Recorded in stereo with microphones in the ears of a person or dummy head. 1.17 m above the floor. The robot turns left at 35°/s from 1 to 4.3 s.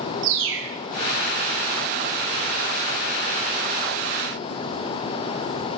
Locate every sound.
0.2 s a bird: 65° right (ahead or behind), 1.2 m